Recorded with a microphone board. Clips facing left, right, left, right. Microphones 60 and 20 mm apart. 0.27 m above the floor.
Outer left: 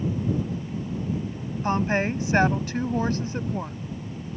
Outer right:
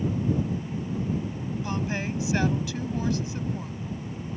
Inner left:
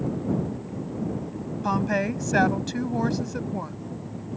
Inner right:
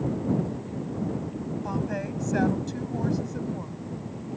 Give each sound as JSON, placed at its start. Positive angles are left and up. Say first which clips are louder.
{"t": 1.6, "sound": "a woman speaking", "louder": "outer left 9 dB, inner left 9 dB", "side_deg": 40}